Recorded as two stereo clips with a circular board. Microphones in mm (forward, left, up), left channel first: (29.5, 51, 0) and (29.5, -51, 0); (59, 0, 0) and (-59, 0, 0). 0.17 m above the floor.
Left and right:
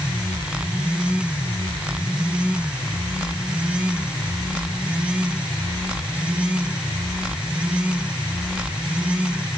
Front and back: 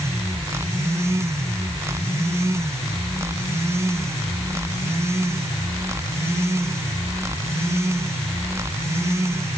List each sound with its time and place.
Only background noise.